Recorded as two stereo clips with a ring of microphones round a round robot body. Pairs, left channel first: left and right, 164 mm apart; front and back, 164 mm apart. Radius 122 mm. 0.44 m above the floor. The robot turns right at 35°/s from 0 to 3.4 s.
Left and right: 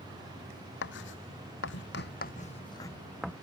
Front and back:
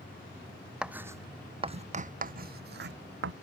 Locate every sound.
0.8 s writing: 95° left; by 3.3 s 175° right